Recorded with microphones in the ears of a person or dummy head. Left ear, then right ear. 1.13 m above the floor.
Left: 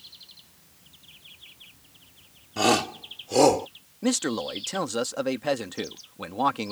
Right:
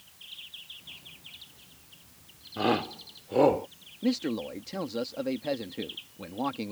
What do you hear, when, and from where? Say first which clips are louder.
2.6 s a shout: left 5 dB; 80° left; by 3.7 s 75° left (ahead or behind)
4.0 s a man speaking: left 4 dB; 45° left (ahead or behind)